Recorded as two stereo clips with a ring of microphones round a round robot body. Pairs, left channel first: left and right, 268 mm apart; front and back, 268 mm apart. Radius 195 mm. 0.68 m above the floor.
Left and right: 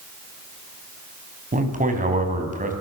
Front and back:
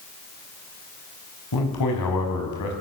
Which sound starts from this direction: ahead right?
A man speaking, at 1.5 s.